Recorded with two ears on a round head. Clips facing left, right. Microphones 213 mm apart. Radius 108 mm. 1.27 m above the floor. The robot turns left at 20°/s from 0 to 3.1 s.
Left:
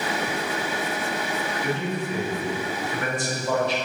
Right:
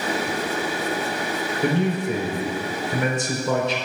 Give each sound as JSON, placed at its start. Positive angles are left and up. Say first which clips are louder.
{"t": 1.6, "sound": "a man speaking", "louder": "right 8 dB", "side_deg": -45, "distance_m": 4.5}